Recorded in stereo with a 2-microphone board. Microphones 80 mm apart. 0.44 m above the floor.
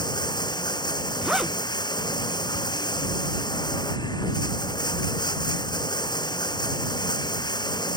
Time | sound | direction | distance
0.0 | running water | 65° left (ahead or behind) | ?
1.2 | a zipper | 10° right (ahead or behind) | ?